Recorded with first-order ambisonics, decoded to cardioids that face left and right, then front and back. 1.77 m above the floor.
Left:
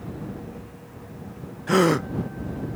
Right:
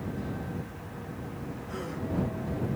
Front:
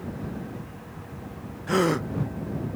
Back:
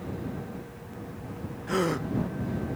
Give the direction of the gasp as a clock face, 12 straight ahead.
9 o'clock.